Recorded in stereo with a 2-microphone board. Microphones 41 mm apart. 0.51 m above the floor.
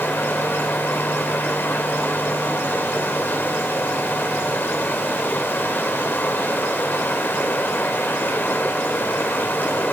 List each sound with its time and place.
0.0 s running water: 60° left (ahead or behind), 1.8 m